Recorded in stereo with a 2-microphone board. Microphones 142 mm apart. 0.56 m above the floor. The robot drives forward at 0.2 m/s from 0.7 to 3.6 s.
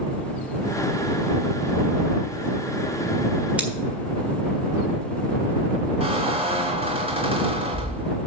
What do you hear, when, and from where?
3.6 s scissors: 10° right (ahead or behind), 1.7 m
6.0 s a squeak: 45° right (ahead or behind), 1.8 m